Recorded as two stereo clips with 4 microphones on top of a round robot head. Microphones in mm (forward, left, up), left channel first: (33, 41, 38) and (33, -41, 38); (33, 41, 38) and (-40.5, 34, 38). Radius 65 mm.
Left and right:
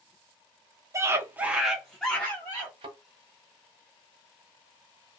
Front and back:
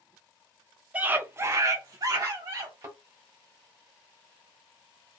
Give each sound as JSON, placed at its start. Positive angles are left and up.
{"t": 0.9, "sound": "a scream", "azimuth_deg": -115, "distance_m": 0.8}
{"t": 2.8, "sound": "a thud", "azimuth_deg": -115, "distance_m": 1.0}